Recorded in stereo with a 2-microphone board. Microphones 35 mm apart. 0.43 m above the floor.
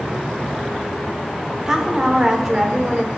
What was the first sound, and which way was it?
A woman speaking, 20° right (ahead or behind).